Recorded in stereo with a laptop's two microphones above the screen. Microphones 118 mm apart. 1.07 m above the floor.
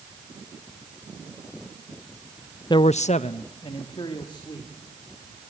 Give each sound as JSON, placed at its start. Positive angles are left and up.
{"t": 2.7, "sound": "a man speaking", "side_deg": 40, "distance_m": 0.5}